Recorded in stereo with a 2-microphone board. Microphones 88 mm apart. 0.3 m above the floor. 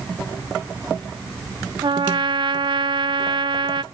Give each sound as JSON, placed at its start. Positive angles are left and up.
{"t": 1.8, "sound": "a trumpet", "side_deg": -65, "distance_m": 0.6}